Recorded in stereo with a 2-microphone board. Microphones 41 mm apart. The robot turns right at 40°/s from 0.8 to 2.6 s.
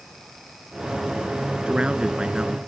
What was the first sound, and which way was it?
A man speaking, 25° right (ahead or behind).